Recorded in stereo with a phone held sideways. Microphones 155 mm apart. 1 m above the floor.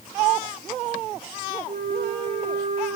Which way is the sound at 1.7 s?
60° right (ahead or behind).